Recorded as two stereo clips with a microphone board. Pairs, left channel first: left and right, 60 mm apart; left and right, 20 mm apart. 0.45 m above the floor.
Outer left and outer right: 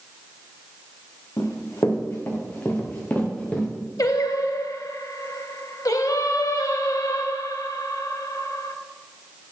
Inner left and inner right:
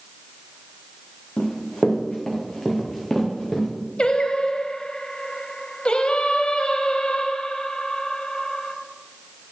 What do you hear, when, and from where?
1.4 s running footsteps: 60° left (ahead or behind), 2.5 m; by 3.7 s 15° left (ahead or behind), 3 m
4.0 s singing: 85° left, 0.7 m